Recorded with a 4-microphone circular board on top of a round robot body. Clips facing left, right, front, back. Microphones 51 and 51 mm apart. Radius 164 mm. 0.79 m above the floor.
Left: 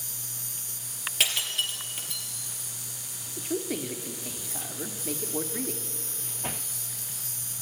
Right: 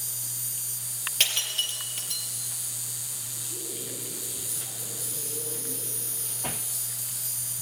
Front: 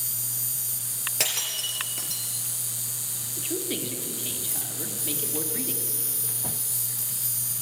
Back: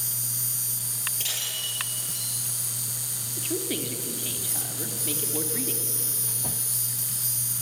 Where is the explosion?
No explosion in this recording.